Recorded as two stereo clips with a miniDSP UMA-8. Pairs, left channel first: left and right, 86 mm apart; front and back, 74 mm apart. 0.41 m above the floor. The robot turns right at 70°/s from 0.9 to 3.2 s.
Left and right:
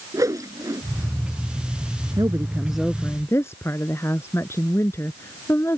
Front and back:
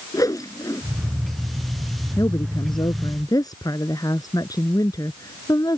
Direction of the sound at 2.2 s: 45° right.